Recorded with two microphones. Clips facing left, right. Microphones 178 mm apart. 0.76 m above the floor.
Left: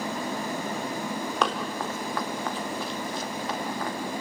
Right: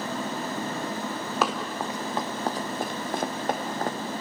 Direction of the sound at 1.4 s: 5° right (ahead or behind).